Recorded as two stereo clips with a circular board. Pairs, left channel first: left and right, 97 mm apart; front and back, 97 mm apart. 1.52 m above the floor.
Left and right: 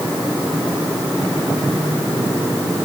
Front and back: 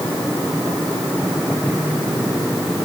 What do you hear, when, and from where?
Only background noise.